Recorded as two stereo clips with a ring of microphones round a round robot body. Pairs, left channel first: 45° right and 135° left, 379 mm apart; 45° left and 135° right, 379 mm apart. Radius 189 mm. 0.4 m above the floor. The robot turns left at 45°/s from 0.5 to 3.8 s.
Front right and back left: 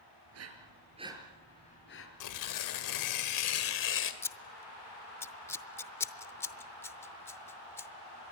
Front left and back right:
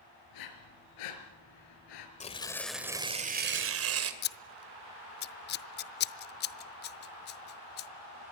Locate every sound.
0.3 s breathing: 80° left, 4 m; by 2.1 s 10° left, 4 m
2.2 s tearing paper: 20° right, 2 m; by 4.1 s 95° right, 2 m
4.2 s scissors: 30° left, 0.6 m